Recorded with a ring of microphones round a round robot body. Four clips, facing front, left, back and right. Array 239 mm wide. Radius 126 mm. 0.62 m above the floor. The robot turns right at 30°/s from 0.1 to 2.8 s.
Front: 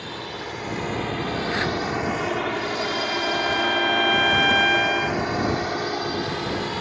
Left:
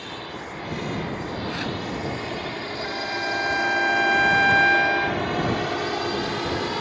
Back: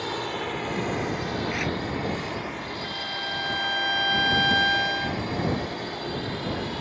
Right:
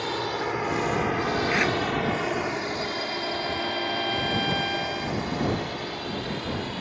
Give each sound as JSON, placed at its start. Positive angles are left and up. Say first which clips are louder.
{"t": 0.0, "sound": "a drone", "louder": "right 7 dB, back 3 dB", "azimuth_deg": -120}
{"t": 1.5, "sound": "tearing paper", "louder": "right 5 dB, front 4 dB", "azimuth_deg": -45}
{"t": 2.8, "sound": "a violin", "louder": "left 2 dB, front 8 dB", "azimuth_deg": 80}